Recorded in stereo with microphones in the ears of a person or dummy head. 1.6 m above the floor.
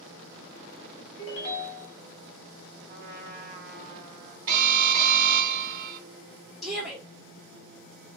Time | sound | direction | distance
1.2 | a ringtone | 40° left (ahead or behind) | 1.2 m
2.9 | a trumpet | 60° right (ahead or behind) | 0.9 m
4.5 | an alarm | 50° right (ahead or behind) | 1.6 m
6.6 | a shout | centre (ahead or behind) | 1.3 m